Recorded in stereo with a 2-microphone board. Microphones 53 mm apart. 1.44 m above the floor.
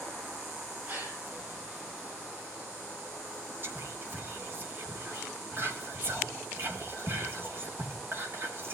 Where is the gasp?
40° right (ahead or behind), 1.8 m.